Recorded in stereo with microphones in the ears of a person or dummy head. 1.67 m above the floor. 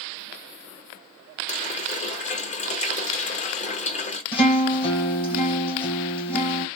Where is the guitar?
25° left (ahead or behind), 1.6 m.